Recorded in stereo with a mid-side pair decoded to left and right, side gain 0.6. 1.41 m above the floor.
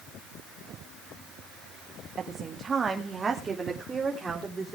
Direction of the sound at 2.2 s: 35° right.